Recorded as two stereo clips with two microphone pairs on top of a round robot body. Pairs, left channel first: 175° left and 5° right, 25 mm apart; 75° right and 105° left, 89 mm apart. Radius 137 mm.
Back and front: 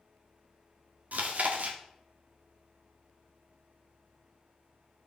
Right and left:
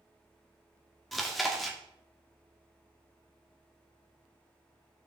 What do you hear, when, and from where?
1.1 s chewing: 15° left, 1.2 m